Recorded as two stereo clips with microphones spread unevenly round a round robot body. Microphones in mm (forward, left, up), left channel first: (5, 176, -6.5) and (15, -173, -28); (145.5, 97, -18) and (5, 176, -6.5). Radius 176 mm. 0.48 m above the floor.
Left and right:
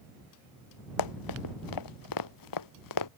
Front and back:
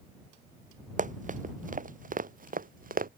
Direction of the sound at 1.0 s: 120° left.